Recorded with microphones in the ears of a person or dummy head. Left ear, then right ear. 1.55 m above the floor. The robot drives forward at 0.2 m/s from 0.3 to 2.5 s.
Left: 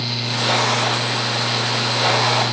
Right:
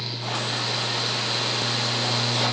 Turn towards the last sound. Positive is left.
No sound to turn to.